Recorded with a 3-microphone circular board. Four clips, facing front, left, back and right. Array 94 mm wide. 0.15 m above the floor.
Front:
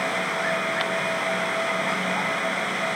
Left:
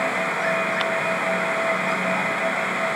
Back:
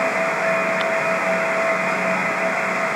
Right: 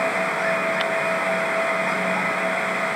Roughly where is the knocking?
I don't hear knocking.